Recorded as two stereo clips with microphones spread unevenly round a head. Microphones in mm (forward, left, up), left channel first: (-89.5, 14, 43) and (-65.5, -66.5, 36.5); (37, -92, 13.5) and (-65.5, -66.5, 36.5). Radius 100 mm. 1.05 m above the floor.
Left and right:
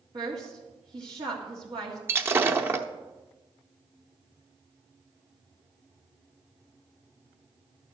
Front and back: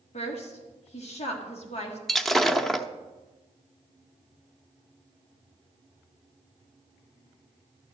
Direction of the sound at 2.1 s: 120° right.